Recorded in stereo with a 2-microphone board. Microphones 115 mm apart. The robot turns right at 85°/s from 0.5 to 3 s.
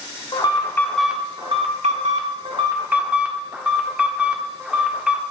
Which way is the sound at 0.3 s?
140° left.